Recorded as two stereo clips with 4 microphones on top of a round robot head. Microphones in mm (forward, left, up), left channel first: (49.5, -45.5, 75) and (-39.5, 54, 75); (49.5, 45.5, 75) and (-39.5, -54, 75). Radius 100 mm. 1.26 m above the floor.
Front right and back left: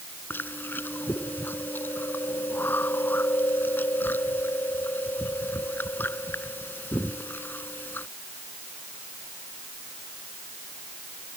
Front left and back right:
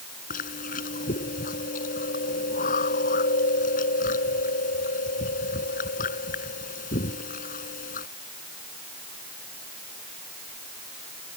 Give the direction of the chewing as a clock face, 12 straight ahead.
11 o'clock.